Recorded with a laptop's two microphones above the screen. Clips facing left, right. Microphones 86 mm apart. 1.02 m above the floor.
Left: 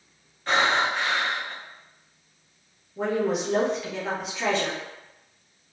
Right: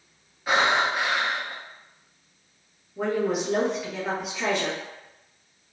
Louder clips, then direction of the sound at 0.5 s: Right 1 dB; 5° right (ahead or behind).